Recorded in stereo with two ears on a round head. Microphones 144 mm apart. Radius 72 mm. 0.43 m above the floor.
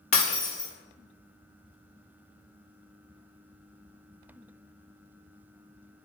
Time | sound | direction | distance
0.1 | breaking glass | 45° left (ahead or behind) | 1.2 m